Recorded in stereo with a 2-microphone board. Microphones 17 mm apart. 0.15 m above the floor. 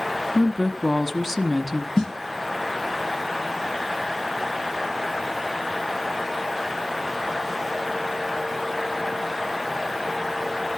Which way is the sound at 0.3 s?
5° left (ahead or behind).